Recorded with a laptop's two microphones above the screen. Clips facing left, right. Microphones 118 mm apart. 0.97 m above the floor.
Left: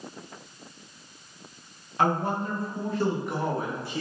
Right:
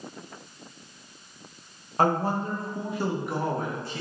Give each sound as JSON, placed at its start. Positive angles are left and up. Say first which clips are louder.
{"t": 2.0, "sound": "a man speaking", "louder": "right 1 dB", "side_deg": -40, "distance_m": 1.1}